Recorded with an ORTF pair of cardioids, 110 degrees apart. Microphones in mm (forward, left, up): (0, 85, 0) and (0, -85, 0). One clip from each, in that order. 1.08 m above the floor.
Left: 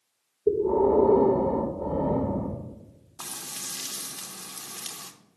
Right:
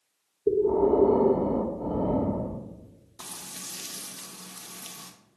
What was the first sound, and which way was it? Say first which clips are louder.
Breathing: even; straight ahead.